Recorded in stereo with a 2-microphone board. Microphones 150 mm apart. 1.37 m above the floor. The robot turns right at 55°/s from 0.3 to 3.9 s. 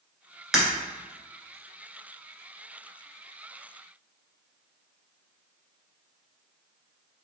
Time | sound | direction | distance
0.5 | breaking glass | 5° right (ahead or behind) | 1.5 m